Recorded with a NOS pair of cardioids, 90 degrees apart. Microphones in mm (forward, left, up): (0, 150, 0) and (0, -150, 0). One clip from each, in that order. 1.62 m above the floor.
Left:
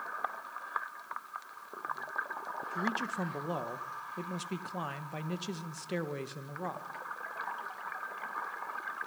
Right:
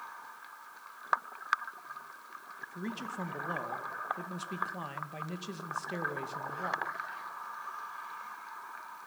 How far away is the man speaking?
About 2.0 m.